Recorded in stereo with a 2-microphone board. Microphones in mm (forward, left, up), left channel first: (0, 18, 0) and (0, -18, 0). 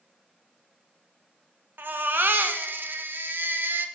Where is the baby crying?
65° right (ahead or behind), 0.7 m.